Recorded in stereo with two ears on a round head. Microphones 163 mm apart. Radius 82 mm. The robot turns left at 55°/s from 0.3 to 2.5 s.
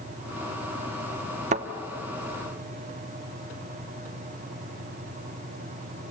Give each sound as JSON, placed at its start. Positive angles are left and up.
{"t": 1.5, "sound": "a thud", "side_deg": -40, "distance_m": 1.0}